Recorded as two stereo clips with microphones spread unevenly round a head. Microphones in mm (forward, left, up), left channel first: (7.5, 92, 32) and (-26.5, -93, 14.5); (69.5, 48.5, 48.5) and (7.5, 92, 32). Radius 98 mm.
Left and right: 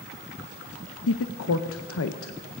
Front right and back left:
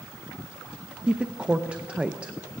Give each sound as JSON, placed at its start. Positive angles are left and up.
{"t": 1.1, "sound": "a woman speaking", "azimuth_deg": 75, "distance_m": 0.6}